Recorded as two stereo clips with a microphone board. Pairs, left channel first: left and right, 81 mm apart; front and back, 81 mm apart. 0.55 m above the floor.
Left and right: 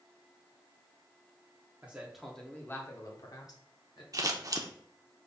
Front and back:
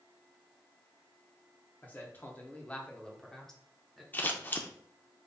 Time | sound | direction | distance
1.8 | a man speaking | 40° right | 0.9 m
4.1 | scissors | 60° right | 0.6 m